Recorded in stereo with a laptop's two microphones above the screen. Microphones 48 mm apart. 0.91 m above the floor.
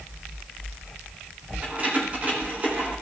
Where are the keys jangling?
35° right (ahead or behind), 3 m.